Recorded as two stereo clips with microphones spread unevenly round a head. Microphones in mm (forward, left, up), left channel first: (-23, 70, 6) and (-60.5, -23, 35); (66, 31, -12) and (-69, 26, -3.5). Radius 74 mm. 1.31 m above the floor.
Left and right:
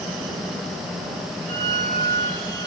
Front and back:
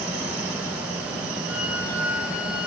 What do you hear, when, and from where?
1.4 s a violin: 95° right, 8 m